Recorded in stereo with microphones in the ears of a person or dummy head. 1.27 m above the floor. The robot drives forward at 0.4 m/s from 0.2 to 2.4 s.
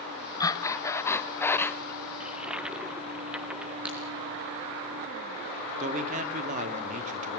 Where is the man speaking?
50° right (ahead or behind), 3.5 m.